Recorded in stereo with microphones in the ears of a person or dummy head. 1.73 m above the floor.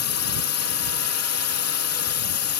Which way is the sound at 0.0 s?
90° left.